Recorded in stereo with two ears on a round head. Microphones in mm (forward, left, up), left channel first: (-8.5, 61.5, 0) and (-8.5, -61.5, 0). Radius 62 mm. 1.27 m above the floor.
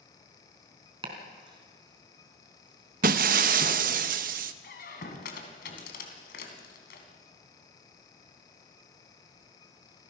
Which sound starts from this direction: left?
A squeak, at 4.6 s.